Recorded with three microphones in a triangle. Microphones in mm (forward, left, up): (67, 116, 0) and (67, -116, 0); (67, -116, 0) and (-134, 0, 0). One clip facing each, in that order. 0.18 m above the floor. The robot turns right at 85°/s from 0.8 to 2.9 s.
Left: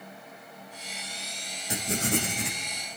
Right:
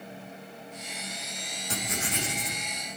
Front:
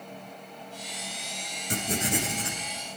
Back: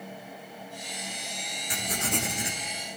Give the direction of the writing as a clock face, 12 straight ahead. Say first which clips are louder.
Left 6 dB, front 4 dB; 12 o'clock.